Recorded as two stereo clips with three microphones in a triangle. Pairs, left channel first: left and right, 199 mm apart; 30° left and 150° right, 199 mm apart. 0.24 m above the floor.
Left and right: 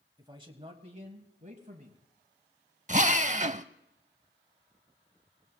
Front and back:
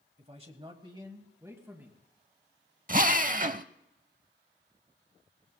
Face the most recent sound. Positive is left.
turn(degrees=-125)